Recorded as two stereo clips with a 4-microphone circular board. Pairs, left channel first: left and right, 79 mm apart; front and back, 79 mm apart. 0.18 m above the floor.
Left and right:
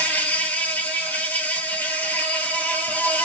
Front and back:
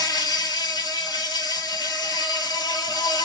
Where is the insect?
20° left, 0.8 m.